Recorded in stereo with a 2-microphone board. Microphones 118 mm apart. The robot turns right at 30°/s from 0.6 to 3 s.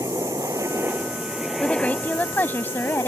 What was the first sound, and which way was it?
A helicopter, 30° right.